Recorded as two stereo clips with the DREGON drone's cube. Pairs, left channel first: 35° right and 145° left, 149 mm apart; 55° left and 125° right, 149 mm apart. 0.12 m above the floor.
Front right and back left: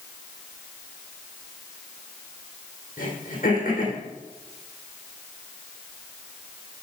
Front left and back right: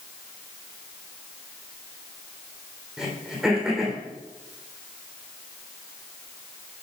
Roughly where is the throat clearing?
Ahead right.